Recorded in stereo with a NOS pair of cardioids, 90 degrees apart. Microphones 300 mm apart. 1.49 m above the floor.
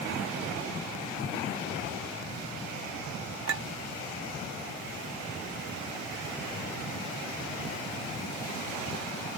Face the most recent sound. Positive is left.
turn(degrees=-45)